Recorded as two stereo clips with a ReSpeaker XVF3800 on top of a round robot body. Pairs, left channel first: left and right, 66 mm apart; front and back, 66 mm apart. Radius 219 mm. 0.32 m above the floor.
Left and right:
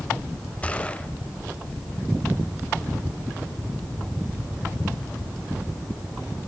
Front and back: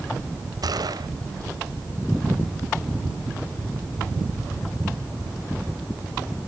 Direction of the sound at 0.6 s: 160° left.